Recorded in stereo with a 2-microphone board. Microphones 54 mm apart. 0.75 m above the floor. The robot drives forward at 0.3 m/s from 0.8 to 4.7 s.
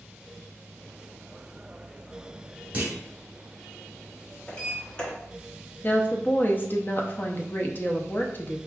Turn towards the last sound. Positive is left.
turn(degrees=35)  # may be behind; listen again after turning